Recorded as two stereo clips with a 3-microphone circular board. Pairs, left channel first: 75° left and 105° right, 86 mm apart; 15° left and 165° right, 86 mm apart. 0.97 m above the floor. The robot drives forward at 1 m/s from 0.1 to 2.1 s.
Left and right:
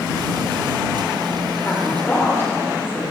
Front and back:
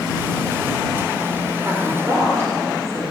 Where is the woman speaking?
135° left, 3 m; by 3.0 s 140° left, 3.5 m.